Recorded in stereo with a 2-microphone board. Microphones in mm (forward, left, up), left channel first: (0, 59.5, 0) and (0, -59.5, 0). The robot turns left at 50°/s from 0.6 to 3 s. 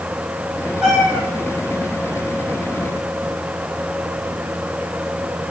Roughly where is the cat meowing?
Centre.